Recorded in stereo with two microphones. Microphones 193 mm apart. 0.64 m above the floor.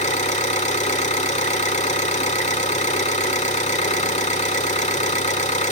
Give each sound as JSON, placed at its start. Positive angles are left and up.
{"t": 0.0, "sound": "an engine running", "side_deg": 35, "distance_m": 2.0}